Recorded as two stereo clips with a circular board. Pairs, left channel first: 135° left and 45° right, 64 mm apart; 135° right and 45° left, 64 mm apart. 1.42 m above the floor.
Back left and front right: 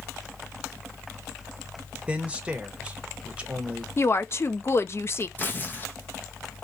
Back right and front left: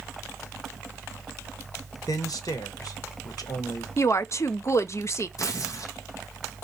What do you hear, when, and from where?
2.1 s a man speaking: 115° right, 1.1 m
4.0 s a woman speaking: 175° right, 0.5 m
5.4 s tearing paper: 165° right, 0.9 m